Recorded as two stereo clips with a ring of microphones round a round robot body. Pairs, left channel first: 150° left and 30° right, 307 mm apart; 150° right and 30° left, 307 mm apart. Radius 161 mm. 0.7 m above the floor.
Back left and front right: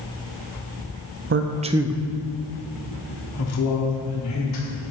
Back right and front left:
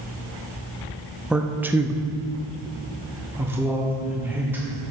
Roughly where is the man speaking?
Ahead right.